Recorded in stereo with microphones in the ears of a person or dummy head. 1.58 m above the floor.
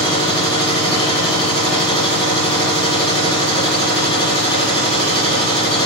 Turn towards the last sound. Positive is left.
turn(degrees=30)  # may be behind; listen again after turning